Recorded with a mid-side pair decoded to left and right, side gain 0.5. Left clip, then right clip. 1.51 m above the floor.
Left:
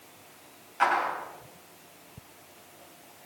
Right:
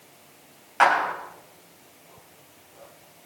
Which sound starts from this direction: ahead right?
A clap, at 0.8 s.